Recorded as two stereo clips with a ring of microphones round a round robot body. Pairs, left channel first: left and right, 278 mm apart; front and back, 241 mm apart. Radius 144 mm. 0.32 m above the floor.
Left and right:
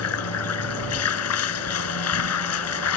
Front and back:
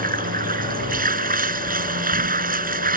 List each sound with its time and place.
0.0 s running water: 125° left